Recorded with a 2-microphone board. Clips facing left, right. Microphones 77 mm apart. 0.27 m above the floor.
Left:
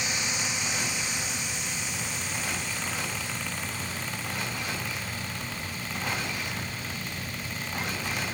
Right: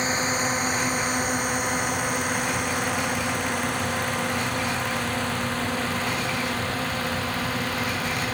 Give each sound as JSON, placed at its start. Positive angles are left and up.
{"t": 0.0, "sound": "a drone", "side_deg": -40}